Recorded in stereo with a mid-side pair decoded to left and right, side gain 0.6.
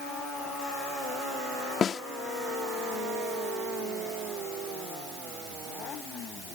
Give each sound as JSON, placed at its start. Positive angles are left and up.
{"t": 1.8, "sound": "a snare drum", "azimuth_deg": 40}